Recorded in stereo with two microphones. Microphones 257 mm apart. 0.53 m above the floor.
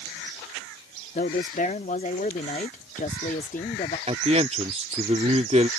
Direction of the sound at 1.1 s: 30° left (ahead or behind).